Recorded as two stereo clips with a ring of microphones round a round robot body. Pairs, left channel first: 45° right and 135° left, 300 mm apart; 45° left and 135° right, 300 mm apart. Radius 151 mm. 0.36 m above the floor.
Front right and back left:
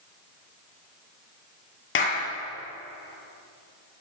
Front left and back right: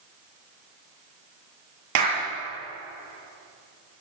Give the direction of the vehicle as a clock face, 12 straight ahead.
No vehicle in this recording.